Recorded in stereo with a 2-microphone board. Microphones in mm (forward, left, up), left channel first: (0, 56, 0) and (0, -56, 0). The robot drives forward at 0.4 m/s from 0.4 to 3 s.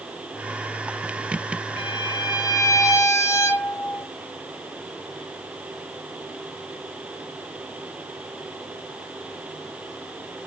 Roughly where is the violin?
Left.